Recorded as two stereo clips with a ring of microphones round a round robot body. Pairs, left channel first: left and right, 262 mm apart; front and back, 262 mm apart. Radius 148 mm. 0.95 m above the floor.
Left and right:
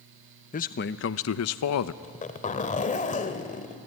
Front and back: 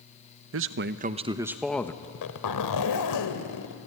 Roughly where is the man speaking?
Behind left.